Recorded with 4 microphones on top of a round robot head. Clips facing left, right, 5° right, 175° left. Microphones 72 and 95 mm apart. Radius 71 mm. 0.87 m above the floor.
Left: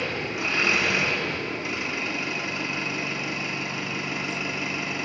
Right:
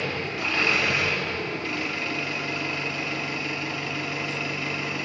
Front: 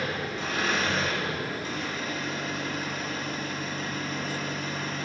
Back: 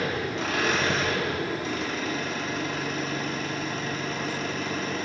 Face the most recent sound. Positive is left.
turn(degrees=165)